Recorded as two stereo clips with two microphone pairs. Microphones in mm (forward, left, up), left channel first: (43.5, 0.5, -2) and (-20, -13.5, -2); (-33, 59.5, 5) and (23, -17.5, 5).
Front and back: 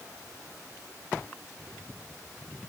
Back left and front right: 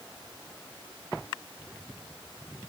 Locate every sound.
Only background noise.